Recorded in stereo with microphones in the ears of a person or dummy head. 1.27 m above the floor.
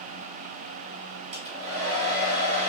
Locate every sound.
1.3 s a hair dryer: 40° right (ahead or behind), 1.0 m